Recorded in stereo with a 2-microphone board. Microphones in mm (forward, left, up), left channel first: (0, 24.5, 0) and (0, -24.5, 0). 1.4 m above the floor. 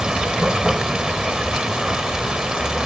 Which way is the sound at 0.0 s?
15° right (ahead or behind).